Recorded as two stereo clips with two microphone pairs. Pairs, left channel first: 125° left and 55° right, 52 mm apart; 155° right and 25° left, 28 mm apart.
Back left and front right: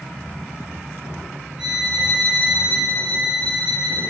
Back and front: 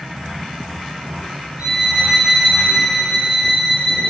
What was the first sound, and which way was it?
A violin, 20° left.